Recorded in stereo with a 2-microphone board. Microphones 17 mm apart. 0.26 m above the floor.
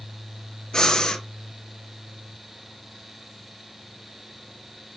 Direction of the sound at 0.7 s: 40° left (ahead or behind).